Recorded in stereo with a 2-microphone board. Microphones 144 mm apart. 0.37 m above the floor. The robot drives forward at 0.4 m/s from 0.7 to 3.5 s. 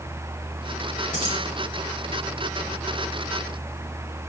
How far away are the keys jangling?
About 5 m.